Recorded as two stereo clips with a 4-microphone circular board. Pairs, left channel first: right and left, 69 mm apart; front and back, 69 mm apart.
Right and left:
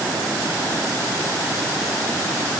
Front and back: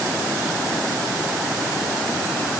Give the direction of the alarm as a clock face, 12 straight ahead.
I don't hear an alarm.